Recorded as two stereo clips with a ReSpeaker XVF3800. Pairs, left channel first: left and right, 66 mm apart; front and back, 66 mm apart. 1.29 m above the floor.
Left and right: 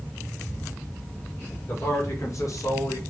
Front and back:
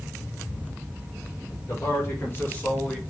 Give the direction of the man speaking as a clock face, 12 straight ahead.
11 o'clock.